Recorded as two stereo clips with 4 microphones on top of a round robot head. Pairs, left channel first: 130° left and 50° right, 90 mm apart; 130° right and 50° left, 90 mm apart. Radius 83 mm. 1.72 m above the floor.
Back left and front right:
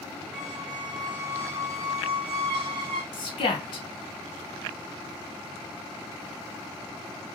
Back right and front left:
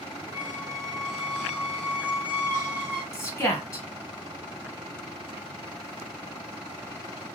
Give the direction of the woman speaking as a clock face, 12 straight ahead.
6 o'clock.